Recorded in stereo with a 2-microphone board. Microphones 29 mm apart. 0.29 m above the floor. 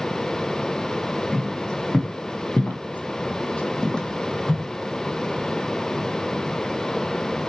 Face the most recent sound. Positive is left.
turn(degrees=15)  # may be behind; listen again after turning